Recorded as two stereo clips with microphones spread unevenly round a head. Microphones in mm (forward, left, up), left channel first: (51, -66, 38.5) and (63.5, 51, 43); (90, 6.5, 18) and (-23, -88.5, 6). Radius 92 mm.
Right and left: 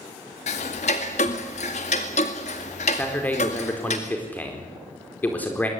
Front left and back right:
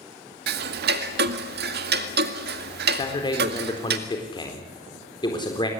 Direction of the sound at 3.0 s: 20° right.